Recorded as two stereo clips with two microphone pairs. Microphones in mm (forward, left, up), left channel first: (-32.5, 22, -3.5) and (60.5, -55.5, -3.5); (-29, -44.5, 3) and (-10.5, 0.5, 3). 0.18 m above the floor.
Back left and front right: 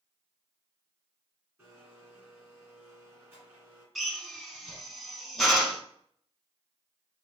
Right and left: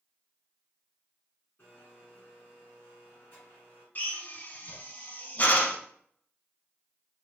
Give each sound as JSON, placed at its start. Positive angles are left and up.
{"t": 1.6, "sound": "a blender", "azimuth_deg": -100, "distance_m": 2.0}
{"t": 4.0, "sound": "a drill", "azimuth_deg": -130, "distance_m": 0.8}